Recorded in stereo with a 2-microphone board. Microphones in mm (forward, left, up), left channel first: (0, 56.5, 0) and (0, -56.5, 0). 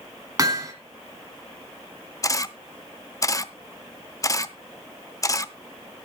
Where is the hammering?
30° right (ahead or behind), 2 m.